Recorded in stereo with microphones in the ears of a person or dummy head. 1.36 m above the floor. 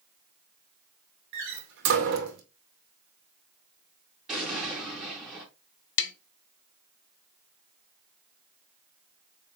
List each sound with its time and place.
1.3 s a door slam: 65° right (ahead or behind), 2.5 m
4.3 s an explosion: 5° left (ahead or behind), 3 m
6.0 s tapping: 70° left (ahead or behind), 1.1 m